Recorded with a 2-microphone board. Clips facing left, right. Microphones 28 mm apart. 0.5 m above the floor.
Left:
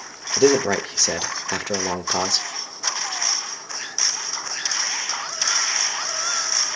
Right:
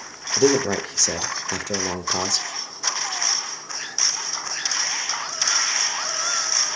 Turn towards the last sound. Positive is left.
turn(degrees=20)  # may be behind; listen again after turning